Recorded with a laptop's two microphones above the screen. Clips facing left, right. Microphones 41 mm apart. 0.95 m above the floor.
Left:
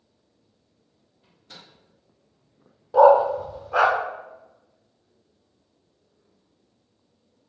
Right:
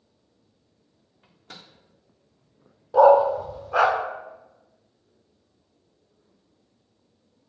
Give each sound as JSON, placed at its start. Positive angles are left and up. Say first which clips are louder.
{"t": 1.2, "sound": "a microwave", "louder": "right 2 dB", "side_deg": -85, "distance_m": 1.5}
{"t": 2.9, "sound": "a dog barking", "louder": "even", "side_deg": 0, "distance_m": 0.6}